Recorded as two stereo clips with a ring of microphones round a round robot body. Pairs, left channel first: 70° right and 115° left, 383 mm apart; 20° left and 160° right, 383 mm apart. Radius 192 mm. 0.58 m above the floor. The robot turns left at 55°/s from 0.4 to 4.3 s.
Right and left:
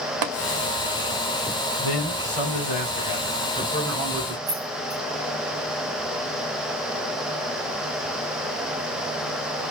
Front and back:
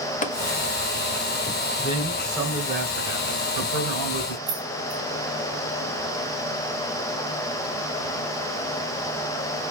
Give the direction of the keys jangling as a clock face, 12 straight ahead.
7 o'clock.